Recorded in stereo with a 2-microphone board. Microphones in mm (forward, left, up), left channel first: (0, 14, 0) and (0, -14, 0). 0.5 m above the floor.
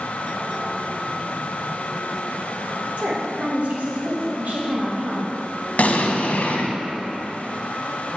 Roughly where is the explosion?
Left.